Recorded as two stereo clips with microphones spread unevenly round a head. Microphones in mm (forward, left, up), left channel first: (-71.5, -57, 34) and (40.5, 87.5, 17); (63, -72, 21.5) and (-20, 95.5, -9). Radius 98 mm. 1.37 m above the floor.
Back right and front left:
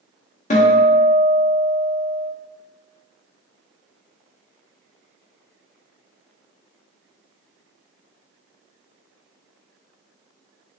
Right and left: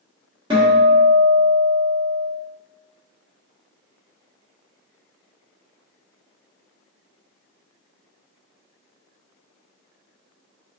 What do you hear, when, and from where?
0.5 s a guitar: straight behind, 0.8 m